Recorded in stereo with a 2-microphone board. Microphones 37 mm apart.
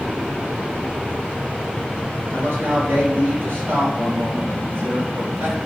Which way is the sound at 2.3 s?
70° right (ahead or behind).